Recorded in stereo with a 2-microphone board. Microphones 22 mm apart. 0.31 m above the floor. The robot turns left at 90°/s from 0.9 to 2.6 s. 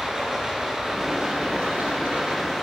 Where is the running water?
20° right, 2 m; by 2.6 s 175° right, 2 m.